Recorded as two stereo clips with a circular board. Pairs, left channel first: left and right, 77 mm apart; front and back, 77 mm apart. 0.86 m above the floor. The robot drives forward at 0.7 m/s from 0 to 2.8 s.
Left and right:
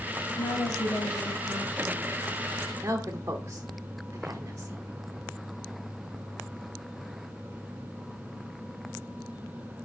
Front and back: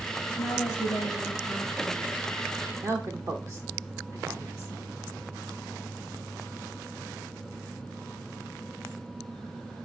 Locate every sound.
0.4 s a woman speaking: 35° left, 4.5 m; by 2.1 s 45° left, 3.5 m
2.8 s a woman speaking: 140° right, 0.8 m